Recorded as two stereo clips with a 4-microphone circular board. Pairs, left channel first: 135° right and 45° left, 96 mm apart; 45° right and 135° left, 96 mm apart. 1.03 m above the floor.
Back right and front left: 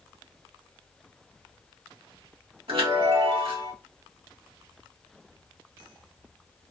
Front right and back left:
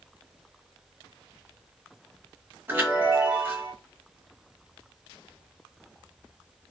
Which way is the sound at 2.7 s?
70° left.